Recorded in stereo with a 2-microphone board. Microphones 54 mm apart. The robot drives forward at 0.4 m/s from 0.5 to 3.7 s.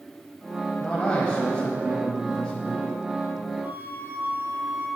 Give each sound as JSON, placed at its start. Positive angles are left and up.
{"t": 0.8, "sound": "a man speaking", "side_deg": 20, "distance_m": 1.0}
{"t": 3.6, "sound": "a flute", "side_deg": -40, "distance_m": 2.5}